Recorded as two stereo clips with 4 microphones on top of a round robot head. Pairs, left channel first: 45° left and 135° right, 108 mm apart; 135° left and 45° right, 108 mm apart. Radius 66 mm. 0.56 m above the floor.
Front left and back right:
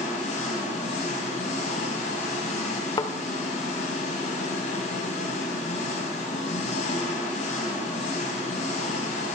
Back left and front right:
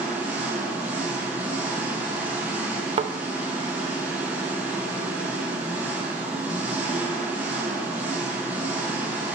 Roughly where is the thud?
Ahead.